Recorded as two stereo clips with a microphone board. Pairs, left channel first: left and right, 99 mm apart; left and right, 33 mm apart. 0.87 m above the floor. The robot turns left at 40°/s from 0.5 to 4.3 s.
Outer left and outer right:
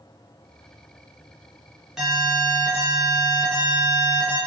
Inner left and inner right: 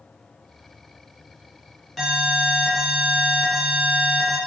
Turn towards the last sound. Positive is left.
turn(degrees=95)